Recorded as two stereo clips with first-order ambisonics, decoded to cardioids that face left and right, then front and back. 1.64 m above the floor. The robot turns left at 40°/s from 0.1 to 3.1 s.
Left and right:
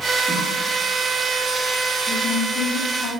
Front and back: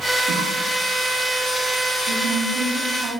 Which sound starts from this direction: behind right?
A cough, at 0.3 s.